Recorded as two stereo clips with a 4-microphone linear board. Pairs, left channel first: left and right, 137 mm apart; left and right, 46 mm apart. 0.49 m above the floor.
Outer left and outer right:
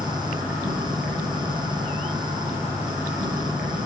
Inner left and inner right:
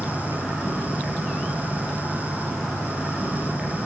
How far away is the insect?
About 4 m.